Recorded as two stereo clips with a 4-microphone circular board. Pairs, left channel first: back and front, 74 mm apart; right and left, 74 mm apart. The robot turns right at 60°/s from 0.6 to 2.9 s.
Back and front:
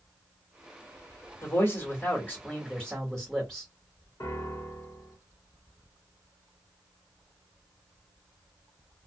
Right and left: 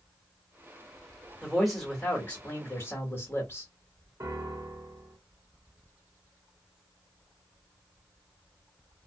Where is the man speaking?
165° left, 1.2 m; by 3.7 s 105° right, 1.2 m.